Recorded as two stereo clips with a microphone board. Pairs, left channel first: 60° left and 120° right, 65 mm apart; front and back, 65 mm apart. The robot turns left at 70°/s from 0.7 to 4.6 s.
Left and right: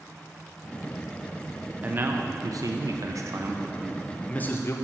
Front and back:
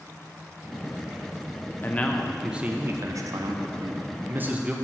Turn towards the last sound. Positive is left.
turn(degrees=110)